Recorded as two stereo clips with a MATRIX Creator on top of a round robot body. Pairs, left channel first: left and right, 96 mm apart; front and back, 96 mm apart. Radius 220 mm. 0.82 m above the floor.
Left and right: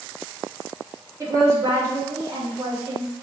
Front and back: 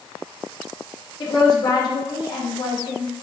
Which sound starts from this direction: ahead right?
A woman speaking, at 1.2 s.